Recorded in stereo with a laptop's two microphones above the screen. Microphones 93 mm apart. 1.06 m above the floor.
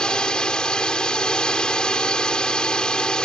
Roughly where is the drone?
Centre.